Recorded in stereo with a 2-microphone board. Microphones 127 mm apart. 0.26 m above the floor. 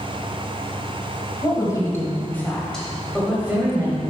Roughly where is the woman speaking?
Left.